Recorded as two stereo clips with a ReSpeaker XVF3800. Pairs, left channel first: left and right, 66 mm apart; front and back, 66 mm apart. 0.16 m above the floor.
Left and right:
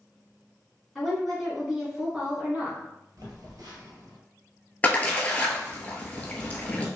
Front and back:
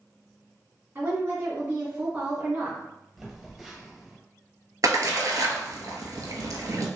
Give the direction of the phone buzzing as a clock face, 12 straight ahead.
3 o'clock.